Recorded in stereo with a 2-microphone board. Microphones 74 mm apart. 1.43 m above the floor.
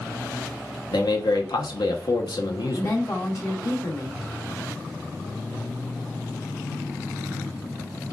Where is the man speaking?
75° left (ahead or behind), 0.9 m.